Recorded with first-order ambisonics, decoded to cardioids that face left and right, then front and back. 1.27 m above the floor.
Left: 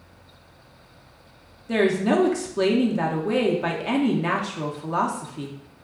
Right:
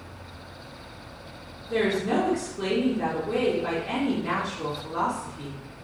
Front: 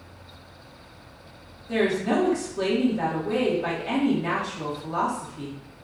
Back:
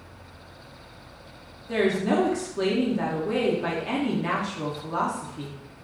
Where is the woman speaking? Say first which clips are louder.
Left 4 dB, even; 95° left, 0.5 m.